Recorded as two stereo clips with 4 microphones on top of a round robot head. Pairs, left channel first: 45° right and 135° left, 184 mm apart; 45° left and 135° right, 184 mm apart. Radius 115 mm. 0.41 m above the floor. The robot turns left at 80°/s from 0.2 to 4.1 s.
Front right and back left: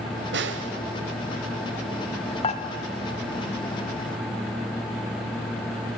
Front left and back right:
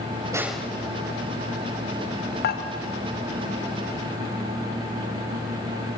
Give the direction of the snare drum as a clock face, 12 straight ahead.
7 o'clock.